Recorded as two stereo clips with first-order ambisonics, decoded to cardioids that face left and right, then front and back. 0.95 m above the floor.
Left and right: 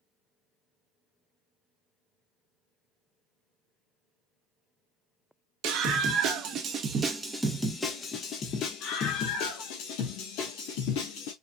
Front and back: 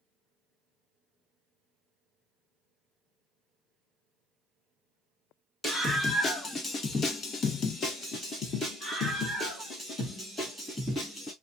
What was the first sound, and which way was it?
A scream, 70° right.